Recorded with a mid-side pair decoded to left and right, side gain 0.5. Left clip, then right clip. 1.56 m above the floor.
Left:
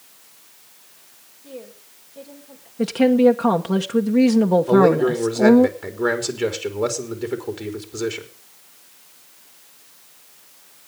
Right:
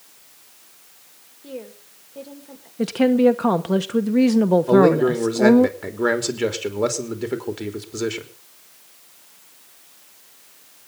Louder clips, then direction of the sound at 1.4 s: Right 3 dB; 45° right.